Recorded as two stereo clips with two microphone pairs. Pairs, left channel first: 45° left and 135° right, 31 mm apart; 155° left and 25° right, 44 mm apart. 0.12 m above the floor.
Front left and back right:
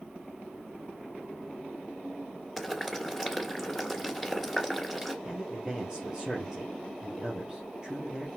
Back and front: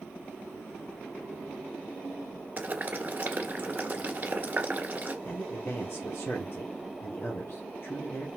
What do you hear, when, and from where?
2.6 s boiling: 45° right, 1.8 m
5.2 s a man speaking: 160° left, 2.5 m